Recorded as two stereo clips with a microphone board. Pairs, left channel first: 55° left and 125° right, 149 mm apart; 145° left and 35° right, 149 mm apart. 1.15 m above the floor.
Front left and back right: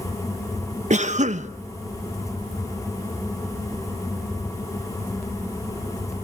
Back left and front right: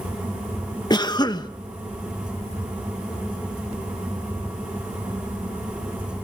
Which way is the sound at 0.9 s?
155° right.